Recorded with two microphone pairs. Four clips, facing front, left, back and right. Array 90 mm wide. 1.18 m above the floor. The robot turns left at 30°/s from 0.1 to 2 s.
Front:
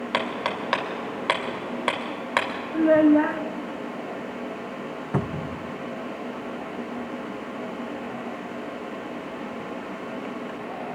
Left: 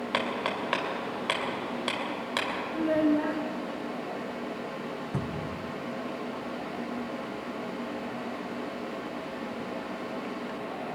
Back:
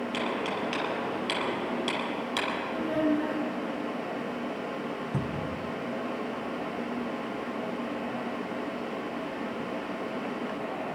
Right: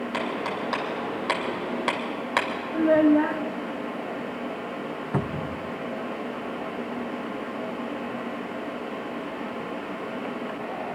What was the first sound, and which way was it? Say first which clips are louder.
Hammering: even, front 5 dB; 25° left.